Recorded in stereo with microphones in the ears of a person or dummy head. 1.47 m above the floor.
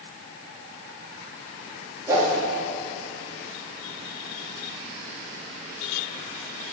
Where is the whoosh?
15° right (ahead or behind), 3 m.